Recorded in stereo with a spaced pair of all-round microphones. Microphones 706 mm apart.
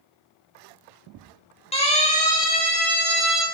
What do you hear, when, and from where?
1.7 s a siren: 10° left (ahead or behind), 7 m; by 3.5 s 15° left (ahead or behind), 5 m